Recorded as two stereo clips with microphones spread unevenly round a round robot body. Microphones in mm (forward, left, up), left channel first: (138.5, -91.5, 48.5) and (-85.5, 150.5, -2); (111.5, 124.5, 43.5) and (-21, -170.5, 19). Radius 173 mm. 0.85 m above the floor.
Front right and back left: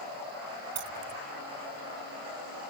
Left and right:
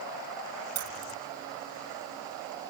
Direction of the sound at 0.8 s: 165° right.